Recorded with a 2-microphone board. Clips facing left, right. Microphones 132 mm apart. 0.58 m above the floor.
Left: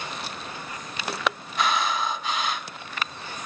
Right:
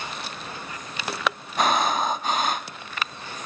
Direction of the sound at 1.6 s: 45° right (ahead or behind).